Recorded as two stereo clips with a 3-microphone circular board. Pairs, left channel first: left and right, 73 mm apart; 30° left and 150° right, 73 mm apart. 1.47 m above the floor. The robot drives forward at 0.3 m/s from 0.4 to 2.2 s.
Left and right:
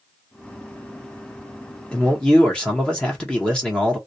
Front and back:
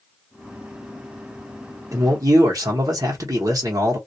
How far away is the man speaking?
About 0.8 m.